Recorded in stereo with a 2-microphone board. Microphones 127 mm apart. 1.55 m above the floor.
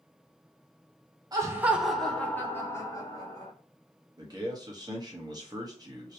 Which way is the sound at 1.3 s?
30° right (ahead or behind).